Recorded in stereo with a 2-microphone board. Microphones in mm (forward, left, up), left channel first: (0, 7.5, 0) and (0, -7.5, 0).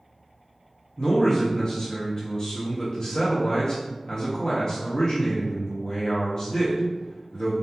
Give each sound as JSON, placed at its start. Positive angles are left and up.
{"t": 1.0, "sound": "a man speaking", "side_deg": 40, "distance_m": 0.5}